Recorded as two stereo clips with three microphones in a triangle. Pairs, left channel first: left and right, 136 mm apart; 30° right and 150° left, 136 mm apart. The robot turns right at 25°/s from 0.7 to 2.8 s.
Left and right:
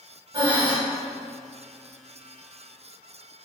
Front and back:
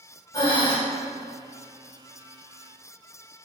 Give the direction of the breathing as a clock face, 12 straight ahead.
2 o'clock.